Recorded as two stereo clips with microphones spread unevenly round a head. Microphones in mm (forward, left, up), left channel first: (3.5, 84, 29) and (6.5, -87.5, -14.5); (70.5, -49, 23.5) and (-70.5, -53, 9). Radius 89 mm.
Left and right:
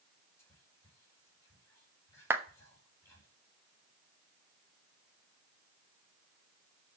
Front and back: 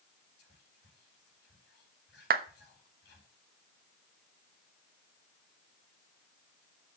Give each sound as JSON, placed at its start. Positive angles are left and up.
{"t": 0.4, "sound": "whispering", "azimuth_deg": 15, "distance_m": 5.0}
{"t": 2.3, "sound": "a clap", "azimuth_deg": -165, "distance_m": 1.0}